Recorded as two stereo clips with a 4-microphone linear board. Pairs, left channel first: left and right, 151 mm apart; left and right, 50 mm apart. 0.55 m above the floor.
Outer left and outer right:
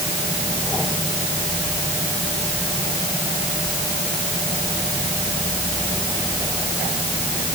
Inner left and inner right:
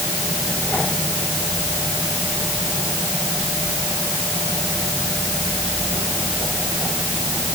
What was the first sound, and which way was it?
Only background noise.